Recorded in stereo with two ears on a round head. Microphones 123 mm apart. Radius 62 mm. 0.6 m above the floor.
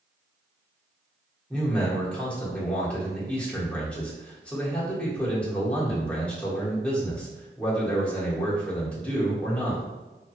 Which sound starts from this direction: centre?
A man speaking, at 1.5 s.